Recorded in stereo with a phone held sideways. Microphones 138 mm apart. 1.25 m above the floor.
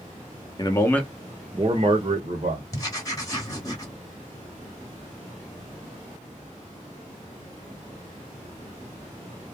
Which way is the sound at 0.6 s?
30° left (ahead or behind).